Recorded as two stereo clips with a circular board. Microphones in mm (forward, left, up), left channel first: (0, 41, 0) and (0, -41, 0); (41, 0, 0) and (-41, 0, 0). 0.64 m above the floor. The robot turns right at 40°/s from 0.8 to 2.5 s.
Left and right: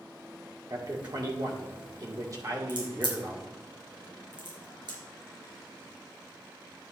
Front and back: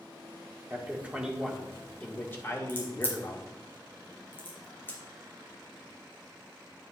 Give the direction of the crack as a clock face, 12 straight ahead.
2 o'clock.